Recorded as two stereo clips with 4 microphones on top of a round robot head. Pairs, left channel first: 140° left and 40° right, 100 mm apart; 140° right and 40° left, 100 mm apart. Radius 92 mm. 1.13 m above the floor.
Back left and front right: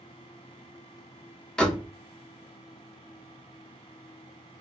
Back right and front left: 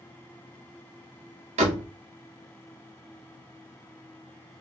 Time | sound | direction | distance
1.6 | a door slam | 55° left | 0.7 m